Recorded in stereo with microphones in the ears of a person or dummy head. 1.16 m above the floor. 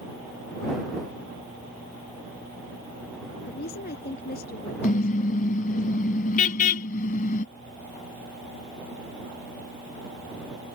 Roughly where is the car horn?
Left.